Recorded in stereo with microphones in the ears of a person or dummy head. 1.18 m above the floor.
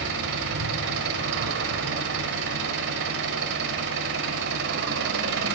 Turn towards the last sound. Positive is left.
turn(degrees=-55)  # may be behind; listen again after turning